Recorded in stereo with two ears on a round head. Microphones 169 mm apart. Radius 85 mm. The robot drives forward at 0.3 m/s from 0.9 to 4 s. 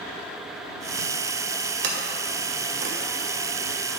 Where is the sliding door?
55° right (ahead or behind), 1.7 m; by 2.9 s 65° right (ahead or behind), 1.6 m.